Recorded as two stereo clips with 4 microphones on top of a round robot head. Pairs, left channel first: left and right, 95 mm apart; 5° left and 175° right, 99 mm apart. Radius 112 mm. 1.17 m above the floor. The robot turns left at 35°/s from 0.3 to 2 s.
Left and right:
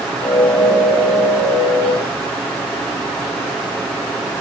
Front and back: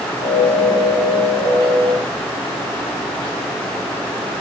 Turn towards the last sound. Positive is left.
No sound to turn to.